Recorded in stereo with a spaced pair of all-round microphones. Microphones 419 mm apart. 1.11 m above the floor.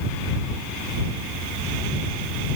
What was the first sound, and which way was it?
Only background noise.